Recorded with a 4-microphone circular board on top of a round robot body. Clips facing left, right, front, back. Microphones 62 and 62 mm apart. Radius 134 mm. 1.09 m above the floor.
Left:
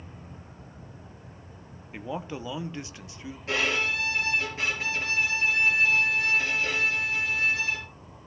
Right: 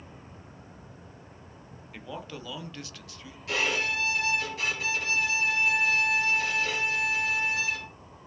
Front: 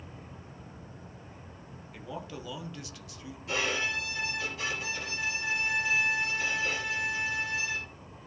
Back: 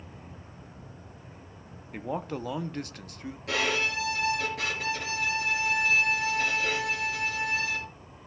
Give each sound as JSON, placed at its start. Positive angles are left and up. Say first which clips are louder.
{"t": 1.9, "sound": "a man speaking", "louder": "left 5 dB, back 8 dB", "azimuth_deg": 155, "distance_m": 1.0}
{"t": 3.5, "sound": "a violin", "louder": "left 1 dB, back 3 dB", "azimuth_deg": 150, "distance_m": 4.0}